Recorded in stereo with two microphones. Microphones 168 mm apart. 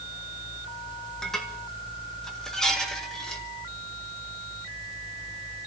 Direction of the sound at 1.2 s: 5° left (ahead or behind).